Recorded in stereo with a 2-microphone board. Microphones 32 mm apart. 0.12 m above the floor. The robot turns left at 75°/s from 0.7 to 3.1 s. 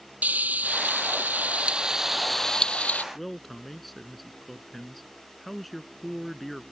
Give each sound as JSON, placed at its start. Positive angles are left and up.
{"t": 0.2, "sound": "frying", "azimuth_deg": -65}
{"t": 3.1, "sound": "a man speaking", "side_deg": 5}